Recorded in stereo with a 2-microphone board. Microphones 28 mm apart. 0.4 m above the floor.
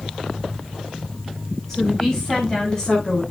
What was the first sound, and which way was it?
A woman speaking, 15° left (ahead or behind).